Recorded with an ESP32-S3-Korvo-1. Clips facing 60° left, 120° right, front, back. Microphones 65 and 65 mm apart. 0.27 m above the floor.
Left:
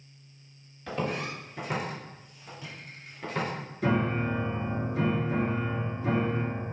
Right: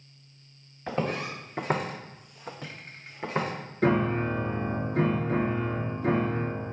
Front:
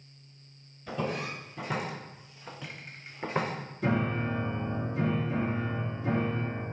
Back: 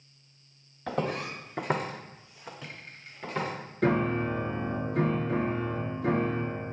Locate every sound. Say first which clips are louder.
0.9 s footsteps: right 2 dB, back 2 dB; straight behind, 1.1 m; by 3.5 s 55° right, 1.0 m
3.8 s a piano: right 3 dB, back 3 dB; 155° right, 0.8 m